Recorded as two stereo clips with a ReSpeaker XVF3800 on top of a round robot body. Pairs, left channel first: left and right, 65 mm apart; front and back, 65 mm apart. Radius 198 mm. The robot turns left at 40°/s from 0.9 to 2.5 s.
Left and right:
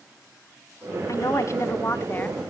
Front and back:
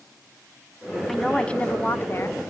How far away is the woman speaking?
About 1.7 m.